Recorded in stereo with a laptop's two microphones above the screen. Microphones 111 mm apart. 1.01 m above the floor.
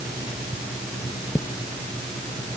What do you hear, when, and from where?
Only background noise.